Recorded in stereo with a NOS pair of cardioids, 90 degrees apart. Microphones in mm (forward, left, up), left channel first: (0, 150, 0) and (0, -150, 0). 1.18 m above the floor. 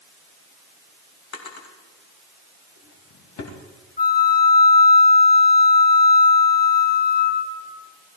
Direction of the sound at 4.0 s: 30° left.